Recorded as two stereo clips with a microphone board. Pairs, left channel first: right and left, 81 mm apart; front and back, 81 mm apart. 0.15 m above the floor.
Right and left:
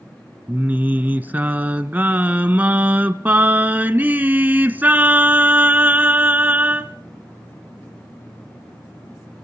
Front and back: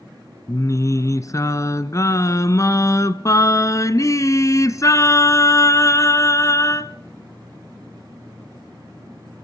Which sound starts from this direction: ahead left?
Singing, at 0.5 s.